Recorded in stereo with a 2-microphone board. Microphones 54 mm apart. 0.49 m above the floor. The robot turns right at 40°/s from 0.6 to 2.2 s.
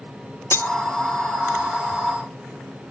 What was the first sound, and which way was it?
Cutlery clinking, 55° left (ahead or behind).